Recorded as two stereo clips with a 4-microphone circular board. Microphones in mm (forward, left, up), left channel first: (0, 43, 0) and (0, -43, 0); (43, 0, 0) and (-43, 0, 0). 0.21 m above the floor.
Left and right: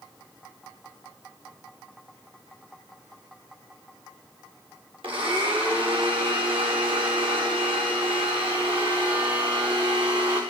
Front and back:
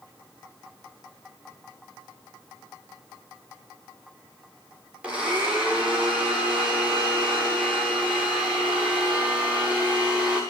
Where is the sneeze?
I don't hear a sneeze.